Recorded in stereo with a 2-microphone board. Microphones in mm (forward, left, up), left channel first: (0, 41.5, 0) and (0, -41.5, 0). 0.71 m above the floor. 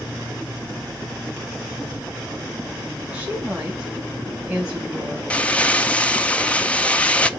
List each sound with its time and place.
3.1 s a woman speaking: 20° right (ahead or behind), 4.5 m
5.3 s crumpling: 15° left (ahead or behind), 0.8 m